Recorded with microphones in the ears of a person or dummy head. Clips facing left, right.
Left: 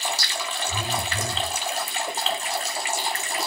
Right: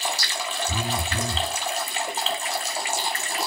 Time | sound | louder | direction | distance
0.7 | a phone buzzing | right 1 dB | 30° right (ahead or behind) | 2 m